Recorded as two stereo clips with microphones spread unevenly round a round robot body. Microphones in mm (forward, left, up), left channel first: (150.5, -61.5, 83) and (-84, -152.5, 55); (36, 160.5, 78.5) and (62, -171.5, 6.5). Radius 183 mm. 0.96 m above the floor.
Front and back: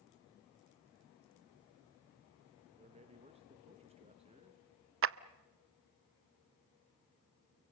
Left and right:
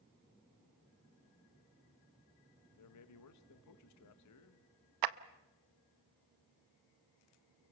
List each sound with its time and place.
2.7 s a man speaking: 140° left, 1.6 m
5.0 s a clap: 115° right, 0.6 m